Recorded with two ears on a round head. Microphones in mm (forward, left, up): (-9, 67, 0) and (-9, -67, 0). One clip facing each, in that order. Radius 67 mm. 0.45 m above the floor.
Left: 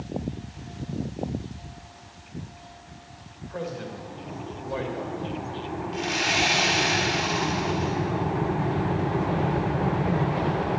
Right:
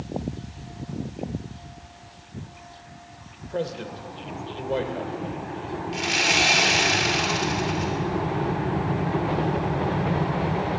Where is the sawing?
70° right (ahead or behind), 3 m.